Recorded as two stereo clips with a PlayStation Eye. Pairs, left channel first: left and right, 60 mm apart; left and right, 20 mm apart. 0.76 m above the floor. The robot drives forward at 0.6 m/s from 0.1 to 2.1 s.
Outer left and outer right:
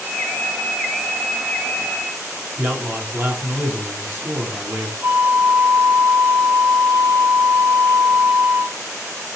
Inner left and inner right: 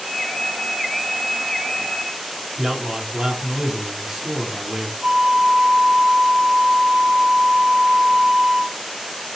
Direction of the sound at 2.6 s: 30° right (ahead or behind).